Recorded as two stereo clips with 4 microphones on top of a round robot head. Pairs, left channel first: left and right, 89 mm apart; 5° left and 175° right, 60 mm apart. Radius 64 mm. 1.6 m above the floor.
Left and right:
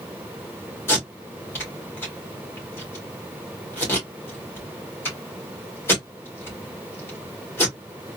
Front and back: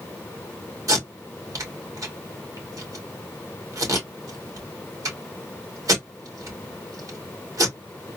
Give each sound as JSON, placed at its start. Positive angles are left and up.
{"t": 0.9, "sound": "tape being pulled", "azimuth_deg": 160, "distance_m": 2.0}